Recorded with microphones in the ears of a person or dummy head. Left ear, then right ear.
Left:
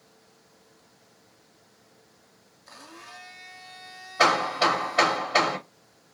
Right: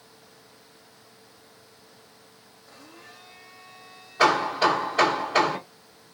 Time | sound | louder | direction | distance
2.7 | a blender | left 4 dB | 55° left (ahead or behind) | 1.4 m
4.2 | hammering | right 1 dB | 20° left (ahead or behind) | 3 m